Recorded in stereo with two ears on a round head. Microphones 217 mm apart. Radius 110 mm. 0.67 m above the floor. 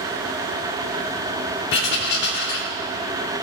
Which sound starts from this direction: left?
Writing, at 1.7 s.